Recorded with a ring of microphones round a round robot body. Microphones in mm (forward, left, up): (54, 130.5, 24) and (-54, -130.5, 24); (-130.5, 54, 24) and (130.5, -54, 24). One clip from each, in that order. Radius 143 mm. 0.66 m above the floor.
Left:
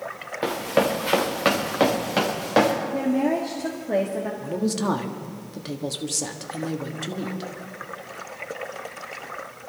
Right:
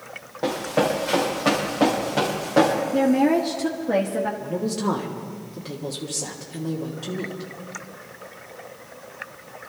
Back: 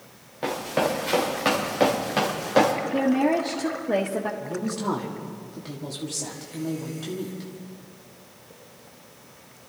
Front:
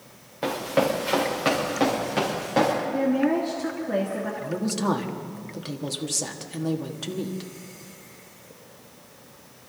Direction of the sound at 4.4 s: 30° left.